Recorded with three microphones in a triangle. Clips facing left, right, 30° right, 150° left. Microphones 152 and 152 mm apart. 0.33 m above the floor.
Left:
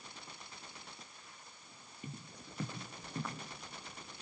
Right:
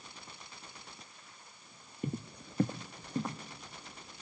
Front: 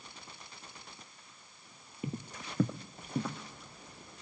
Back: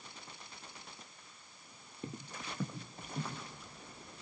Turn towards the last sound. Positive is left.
turn(degrees=-20)